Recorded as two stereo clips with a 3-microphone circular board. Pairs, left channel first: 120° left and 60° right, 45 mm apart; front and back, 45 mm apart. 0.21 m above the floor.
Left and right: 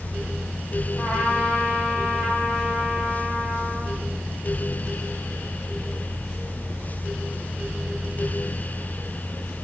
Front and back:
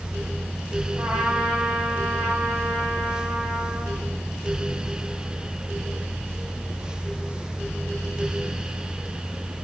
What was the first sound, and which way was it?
A trumpet, 175° right.